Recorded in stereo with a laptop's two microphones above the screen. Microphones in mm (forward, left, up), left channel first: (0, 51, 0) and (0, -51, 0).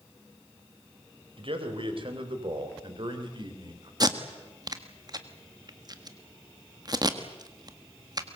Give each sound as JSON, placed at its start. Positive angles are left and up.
{"t": 1.4, "sound": "a man speaking", "side_deg": -60, "distance_m": 4.5}
{"t": 4.0, "sound": "tape being pulled", "side_deg": -40, "distance_m": 1.5}